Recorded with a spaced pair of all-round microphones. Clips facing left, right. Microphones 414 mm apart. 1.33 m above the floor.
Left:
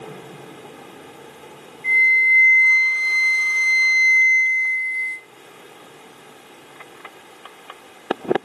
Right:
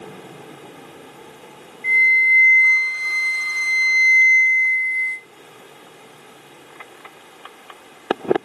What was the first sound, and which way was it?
A flute, 65° right (ahead or behind).